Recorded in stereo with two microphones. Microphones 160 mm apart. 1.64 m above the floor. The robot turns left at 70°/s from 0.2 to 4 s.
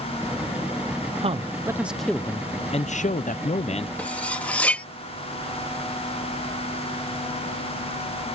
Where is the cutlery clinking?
10° left (ahead or behind).